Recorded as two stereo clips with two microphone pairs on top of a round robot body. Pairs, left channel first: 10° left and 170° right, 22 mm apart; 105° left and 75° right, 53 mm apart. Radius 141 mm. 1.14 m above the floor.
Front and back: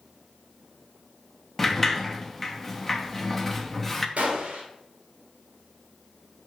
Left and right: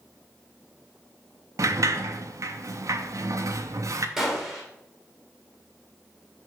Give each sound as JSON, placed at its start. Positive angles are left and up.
{"t": 1.6, "sound": "a sliding door", "azimuth_deg": -75, "distance_m": 0.9}
{"t": 4.2, "sound": "a gunshot", "azimuth_deg": -155, "distance_m": 1.8}